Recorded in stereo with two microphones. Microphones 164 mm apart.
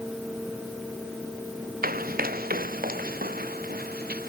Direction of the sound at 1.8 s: 65° right (ahead or behind).